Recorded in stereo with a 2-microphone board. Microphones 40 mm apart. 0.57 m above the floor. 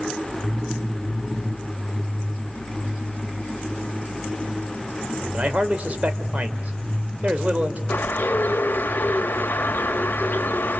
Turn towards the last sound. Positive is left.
turn(degrees=55)  # may be behind; listen again after turning